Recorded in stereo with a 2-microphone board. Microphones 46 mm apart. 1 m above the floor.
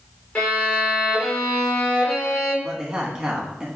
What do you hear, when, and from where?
0.3 s a violin: 30° left (ahead or behind), 2 m
2.6 s a man speaking: 20° right (ahead or behind), 1.4 m